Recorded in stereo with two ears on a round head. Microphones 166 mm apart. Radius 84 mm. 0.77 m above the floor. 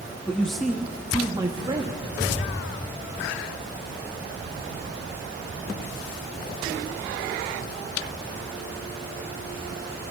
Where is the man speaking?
10° left (ahead or behind), 0.7 m; by 2.1 s 30° right (ahead or behind), 1.3 m.